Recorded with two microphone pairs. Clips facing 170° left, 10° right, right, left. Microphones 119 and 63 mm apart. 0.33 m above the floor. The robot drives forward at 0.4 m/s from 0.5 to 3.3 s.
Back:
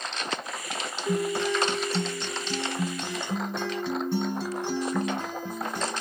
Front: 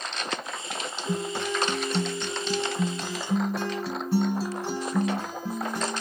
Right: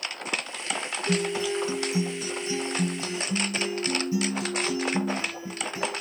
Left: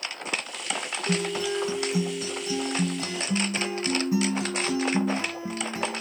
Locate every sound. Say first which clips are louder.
1.1 s a guitar: back 4 dB, right 1 dB; 45° left, 1.9 m; by 6.0 s 75° left, 1.4 m